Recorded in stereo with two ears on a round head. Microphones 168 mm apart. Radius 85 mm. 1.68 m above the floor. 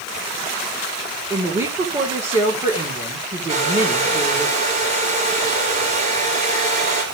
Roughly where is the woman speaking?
Centre.